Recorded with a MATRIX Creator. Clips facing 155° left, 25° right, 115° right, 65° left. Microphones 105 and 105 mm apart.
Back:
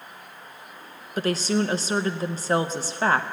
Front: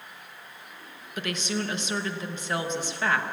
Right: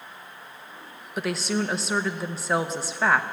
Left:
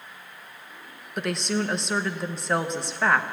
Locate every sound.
1.2 s a woman speaking: 160° left, 0.7 m